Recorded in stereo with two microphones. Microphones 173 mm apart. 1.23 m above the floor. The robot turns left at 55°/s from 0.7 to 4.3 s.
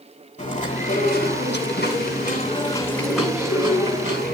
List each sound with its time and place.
0.4 s chewing: 135° left, 7 m; by 4.3 s 65° right, 7 m